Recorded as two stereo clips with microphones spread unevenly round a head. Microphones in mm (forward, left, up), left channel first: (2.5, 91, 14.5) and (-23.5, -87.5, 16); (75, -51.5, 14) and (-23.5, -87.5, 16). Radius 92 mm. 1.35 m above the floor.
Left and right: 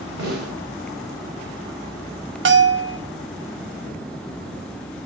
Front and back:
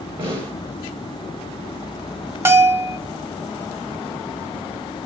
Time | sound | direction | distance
0.2 | a snare drum | 130° right | 8 m
2.5 | a bell | 100° right | 1.1 m